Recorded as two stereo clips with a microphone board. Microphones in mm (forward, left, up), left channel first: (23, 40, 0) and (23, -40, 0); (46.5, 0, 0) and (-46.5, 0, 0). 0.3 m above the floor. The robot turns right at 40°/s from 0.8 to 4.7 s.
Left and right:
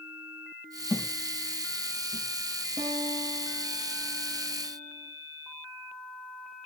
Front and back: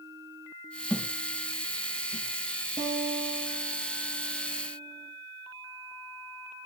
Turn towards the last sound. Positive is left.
turn(degrees=-65)